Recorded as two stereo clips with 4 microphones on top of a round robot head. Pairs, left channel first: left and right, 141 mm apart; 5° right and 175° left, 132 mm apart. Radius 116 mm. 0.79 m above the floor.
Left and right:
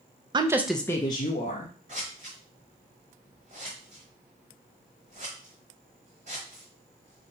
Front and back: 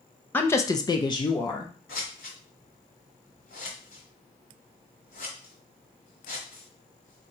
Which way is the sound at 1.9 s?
35° right.